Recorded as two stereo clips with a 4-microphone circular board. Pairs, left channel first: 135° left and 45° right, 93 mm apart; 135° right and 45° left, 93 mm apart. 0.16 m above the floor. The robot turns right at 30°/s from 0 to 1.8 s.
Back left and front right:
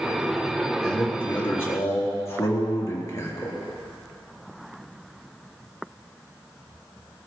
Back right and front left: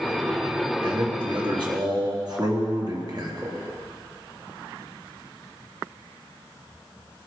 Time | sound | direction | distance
0.8 | a man speaking | 50° left | 3.5 m